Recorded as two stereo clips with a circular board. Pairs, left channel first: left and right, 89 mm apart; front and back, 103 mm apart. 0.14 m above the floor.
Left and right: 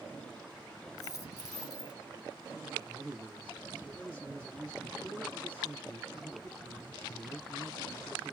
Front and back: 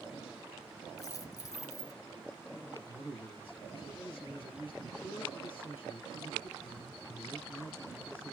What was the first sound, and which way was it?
A dropped coin, 50° left.